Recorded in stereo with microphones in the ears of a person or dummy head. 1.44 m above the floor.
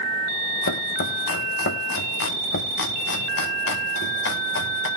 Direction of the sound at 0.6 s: 60° left (ahead or behind).